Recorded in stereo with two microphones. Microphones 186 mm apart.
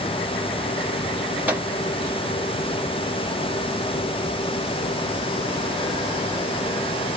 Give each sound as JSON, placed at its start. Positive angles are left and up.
{"t": 1.5, "sound": "a microwave", "side_deg": -10, "distance_m": 0.9}